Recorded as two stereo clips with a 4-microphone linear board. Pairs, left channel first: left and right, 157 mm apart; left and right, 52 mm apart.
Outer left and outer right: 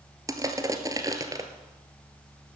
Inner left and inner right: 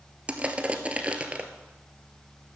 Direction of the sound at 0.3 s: 20° right (ahead or behind).